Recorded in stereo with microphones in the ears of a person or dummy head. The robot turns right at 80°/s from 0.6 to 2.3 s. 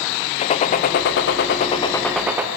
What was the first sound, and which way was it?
A gunshot, 55° left.